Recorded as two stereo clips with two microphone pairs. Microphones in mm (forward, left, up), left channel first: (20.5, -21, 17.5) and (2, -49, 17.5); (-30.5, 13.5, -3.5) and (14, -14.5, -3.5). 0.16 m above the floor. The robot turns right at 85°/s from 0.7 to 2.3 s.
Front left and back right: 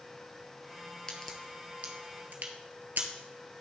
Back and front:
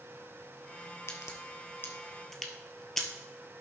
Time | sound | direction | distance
1.1 | a crack | 125° left | 1.4 m